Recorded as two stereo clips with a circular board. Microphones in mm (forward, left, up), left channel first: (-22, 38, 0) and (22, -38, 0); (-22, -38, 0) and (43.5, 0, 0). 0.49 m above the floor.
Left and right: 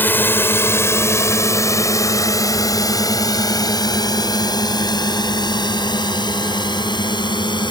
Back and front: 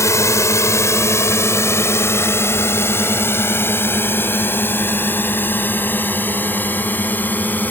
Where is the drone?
Straight behind; by 7.7 s 145° left.